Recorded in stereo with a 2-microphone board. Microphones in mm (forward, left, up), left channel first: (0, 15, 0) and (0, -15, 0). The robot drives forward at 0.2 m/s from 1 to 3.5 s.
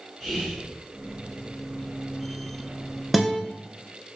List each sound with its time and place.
0.2 s whispering: 10° left (ahead or behind), 1.6 m
3.1 s a guitar: centre (ahead or behind), 0.6 m